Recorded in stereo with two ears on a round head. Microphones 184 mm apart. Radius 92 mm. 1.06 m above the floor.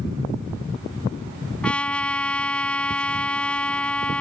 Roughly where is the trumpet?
Centre.